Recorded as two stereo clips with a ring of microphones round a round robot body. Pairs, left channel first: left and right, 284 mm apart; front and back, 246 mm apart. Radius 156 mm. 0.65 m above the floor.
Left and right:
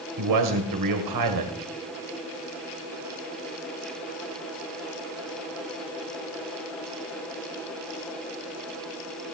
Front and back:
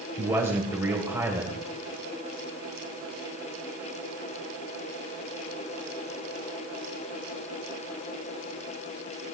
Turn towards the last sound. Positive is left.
turn(degrees=-100)